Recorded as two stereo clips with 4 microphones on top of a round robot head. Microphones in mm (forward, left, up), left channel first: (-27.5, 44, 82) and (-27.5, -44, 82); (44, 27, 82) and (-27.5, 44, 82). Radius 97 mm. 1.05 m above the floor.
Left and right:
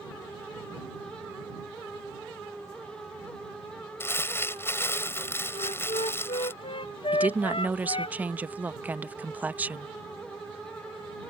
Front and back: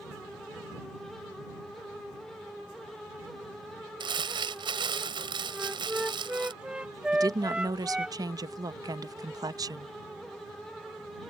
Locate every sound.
4.0 s crumpling: 155° left
5.5 s a flute: 90° left
7.1 s a woman speaking: 160° right